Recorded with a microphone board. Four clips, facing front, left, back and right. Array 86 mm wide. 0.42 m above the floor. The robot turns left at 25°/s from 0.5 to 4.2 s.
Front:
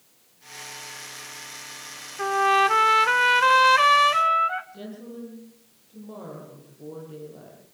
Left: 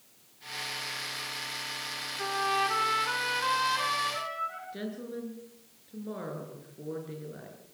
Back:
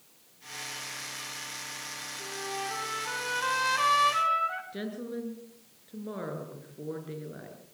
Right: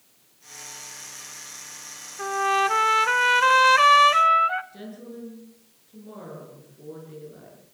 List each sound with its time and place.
2.2 s a trumpet: 15° right, 0.8 m; by 4.6 s 70° right, 0.8 m
4.7 s a woman speaking: 155° left, 6.5 m